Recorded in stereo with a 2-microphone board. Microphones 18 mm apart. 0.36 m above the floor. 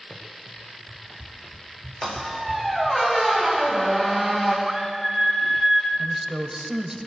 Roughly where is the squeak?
Centre.